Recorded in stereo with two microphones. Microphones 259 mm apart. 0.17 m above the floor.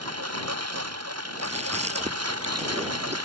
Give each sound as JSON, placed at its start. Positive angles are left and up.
{"t": 0.0, "sound": "a lawn mower", "side_deg": -75}
{"t": 1.4, "sound": "chewing", "side_deg": -25}